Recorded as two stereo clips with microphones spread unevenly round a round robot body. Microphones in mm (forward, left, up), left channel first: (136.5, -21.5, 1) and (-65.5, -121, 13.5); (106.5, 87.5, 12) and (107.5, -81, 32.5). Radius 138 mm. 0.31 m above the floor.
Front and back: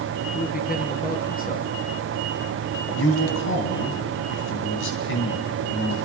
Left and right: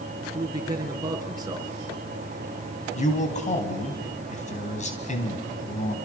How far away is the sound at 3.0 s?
About 3 m.